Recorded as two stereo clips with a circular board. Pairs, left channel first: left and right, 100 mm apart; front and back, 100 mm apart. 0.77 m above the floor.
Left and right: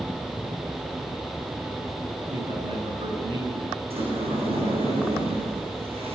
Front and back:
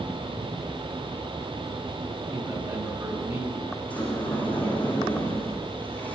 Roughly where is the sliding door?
Right.